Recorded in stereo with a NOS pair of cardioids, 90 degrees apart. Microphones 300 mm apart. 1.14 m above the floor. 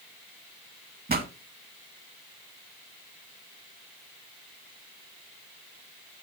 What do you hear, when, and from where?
1.1 s a pop: 30° right, 2 m